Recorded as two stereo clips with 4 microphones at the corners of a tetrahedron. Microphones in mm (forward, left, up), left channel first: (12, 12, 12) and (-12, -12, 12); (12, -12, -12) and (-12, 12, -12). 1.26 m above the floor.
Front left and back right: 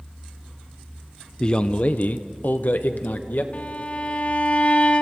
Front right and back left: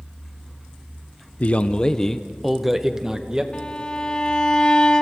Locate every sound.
1.4 s a man speaking: 10° right, 0.7 m; by 3.4 s 70° left, 1.5 m
3.5 s a violin: 10° left, 1.2 m